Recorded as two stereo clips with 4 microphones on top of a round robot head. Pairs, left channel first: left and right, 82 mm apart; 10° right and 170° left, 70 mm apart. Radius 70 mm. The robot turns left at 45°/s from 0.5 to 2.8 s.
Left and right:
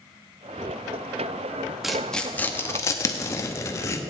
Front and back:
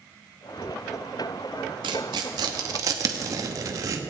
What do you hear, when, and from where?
1.8 s tearing paper: 175° right, 0.7 m; by 4.0 s 140° left, 0.7 m